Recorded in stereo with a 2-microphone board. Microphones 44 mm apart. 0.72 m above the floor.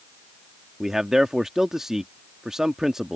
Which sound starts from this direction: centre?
A man speaking, at 0.8 s.